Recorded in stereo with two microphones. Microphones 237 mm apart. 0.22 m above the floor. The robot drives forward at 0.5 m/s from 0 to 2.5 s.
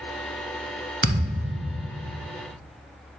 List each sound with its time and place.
1.0 s a thud: 50° right (ahead or behind), 0.9 m; by 2.2 s 40° right (ahead or behind), 1.1 m